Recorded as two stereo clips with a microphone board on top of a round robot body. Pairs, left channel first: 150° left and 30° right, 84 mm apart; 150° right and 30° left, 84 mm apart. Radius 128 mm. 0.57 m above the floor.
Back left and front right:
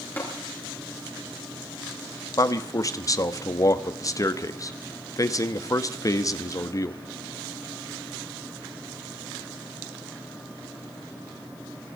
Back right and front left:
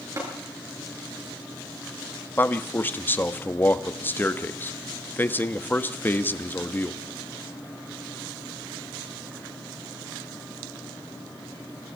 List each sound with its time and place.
0.2 s tapping: 80° left, 6 m
2.4 s a man speaking: 155° left, 1.4 m